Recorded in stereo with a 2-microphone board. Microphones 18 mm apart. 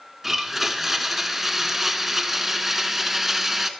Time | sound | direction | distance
0.2 | a blender | 15° right (ahead or behind) | 0.9 m